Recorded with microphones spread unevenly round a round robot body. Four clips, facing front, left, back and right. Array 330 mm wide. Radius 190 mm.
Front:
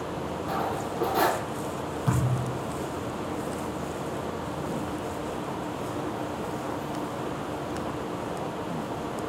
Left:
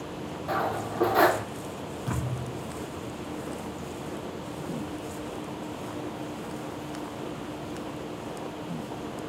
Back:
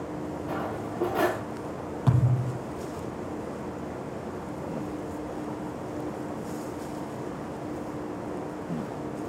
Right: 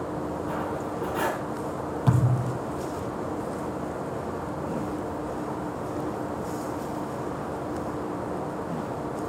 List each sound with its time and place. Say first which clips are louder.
0.5 s cutlery clinking: left 1 dB, front 4 dB; 120° left, 0.8 m
2.1 s a thud: right 8 dB, back 2 dB; 120° right, 8 m